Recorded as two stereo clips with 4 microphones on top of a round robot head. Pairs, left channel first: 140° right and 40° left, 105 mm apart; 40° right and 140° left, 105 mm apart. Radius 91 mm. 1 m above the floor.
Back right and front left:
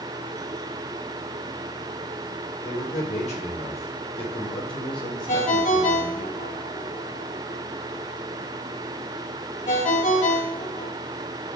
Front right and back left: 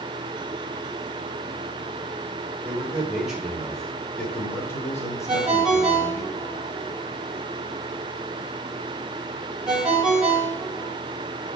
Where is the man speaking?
140° right, 5 m; by 6.3 s 85° right, 4.5 m.